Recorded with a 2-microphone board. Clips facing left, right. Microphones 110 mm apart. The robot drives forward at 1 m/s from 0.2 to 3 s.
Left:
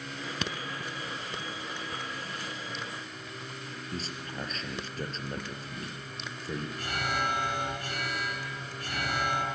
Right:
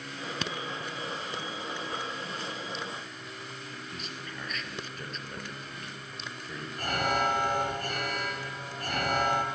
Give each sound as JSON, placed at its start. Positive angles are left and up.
{"t": 3.9, "sound": "a man speaking", "side_deg": 35, "distance_m": 3.0}
{"t": 6.8, "sound": "an alarm", "side_deg": -50, "distance_m": 4.0}